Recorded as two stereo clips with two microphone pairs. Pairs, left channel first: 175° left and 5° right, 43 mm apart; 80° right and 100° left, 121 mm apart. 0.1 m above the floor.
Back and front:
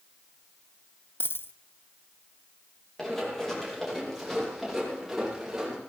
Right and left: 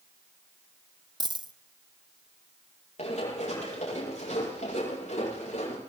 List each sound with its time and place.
1.2 s a dropped coin: 150° left, 0.5 m
3.0 s running footsteps: 105° right, 9 m; by 5.8 s 85° right, 10.5 m